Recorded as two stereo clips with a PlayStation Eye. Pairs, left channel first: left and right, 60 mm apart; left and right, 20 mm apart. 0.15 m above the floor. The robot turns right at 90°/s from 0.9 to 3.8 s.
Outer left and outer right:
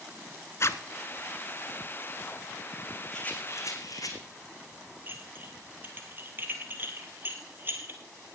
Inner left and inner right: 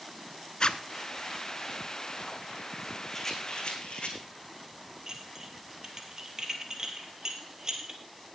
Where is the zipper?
50° left (ahead or behind), 0.7 m.